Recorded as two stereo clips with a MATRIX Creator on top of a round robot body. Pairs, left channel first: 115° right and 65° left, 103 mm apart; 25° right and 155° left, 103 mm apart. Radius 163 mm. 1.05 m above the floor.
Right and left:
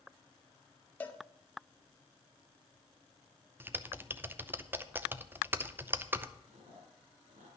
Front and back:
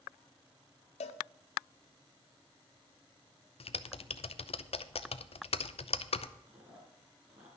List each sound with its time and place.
1.0 s a cowbell: 35° right, 0.6 m
3.6 s typing on a keyboard: straight ahead, 0.7 m
6.5 s chewing: 85° left, 2.5 m